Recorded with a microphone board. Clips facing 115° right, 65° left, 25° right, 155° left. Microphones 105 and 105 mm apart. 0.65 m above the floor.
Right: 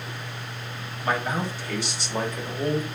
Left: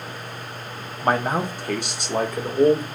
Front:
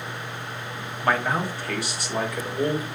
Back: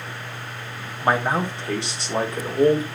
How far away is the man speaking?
About 0.7 m.